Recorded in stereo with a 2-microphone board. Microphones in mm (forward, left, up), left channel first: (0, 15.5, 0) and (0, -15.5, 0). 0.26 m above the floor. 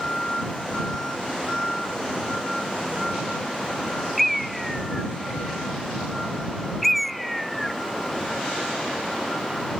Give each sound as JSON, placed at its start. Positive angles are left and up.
{"t": 4.2, "sound": "a bird", "side_deg": 0}